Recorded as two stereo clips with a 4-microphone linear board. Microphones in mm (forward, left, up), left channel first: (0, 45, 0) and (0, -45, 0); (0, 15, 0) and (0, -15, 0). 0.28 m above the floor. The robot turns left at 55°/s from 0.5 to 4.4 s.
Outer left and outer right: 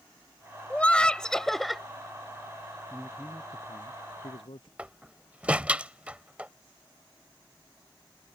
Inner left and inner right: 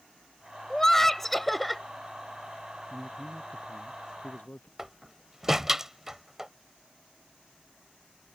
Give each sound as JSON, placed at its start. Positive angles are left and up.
{"t": 0.7, "sound": "laughter", "side_deg": 15}
{"t": 2.9, "sound": "a man speaking", "azimuth_deg": 175}
{"t": 4.8, "sound": "a door slam", "side_deg": -15}